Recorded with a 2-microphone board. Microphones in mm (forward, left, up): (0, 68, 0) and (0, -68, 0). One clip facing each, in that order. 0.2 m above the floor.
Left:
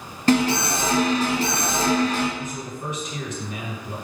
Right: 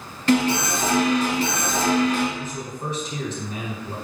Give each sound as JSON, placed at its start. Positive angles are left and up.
{"t": 0.3, "sound": "an alarm", "side_deg": 40, "distance_m": 1.6}
{"t": 2.4, "sound": "a man speaking", "side_deg": -35, "distance_m": 1.4}